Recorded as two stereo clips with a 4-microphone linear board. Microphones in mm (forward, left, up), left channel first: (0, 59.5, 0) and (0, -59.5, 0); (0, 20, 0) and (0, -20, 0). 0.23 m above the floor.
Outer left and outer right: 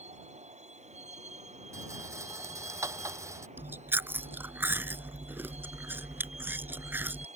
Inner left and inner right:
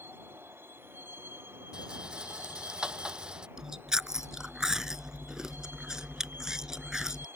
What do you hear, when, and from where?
0.0 s a vehicle: 85° right
1.7 s a rattle: 25° right (ahead or behind)
3.6 s chewing: 20° right (ahead or behind)